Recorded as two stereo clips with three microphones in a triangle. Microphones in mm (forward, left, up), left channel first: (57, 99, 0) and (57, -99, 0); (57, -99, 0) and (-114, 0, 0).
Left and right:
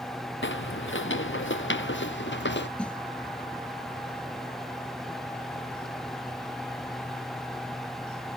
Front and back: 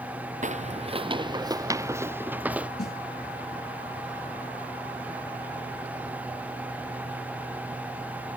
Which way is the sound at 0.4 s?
100° left.